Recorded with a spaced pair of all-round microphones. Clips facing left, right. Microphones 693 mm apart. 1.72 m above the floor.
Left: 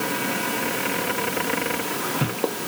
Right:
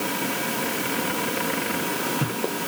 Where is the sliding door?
I don't hear a sliding door.